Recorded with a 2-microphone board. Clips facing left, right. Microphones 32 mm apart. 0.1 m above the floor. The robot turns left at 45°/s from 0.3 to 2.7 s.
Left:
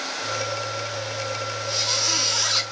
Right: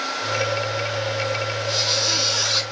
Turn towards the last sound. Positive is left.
turn(degrees=-170)